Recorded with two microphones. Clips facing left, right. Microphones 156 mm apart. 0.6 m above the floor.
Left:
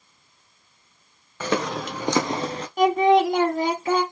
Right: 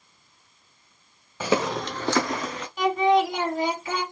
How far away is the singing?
About 1.5 m.